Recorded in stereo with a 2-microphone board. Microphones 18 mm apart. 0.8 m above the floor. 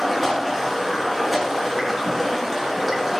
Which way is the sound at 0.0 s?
5° right (ahead or behind).